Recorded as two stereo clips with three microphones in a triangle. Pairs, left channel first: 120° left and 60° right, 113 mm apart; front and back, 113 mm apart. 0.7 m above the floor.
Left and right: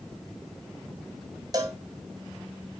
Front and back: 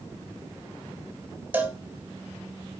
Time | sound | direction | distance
1.5 | a cowbell | 105° right | 2 m